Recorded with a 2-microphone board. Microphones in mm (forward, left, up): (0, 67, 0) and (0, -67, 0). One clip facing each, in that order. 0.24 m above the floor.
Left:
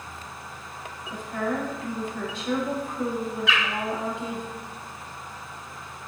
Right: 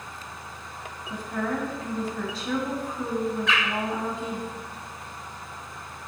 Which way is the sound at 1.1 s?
40° right (ahead or behind).